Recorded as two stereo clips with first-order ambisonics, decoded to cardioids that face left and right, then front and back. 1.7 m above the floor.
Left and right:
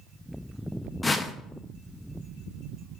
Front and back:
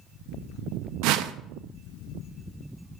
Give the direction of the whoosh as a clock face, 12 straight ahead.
6 o'clock.